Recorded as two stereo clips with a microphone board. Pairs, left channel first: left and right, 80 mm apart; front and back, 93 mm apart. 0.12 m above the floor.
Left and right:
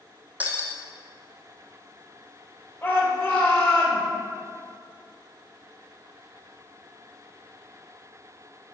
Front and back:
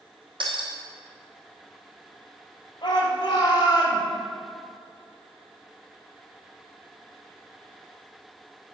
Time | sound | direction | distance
0.4 | breaking glass | 160° right | 2 m
2.8 | a shout | 30° left | 4 m